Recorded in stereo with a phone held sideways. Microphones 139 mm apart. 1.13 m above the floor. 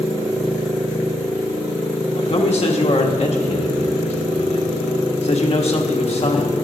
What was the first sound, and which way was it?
A man speaking, 50° left (ahead or behind).